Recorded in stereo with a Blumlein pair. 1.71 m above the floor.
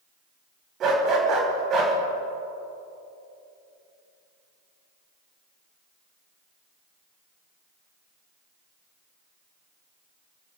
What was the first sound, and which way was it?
A dog barking, 30° right.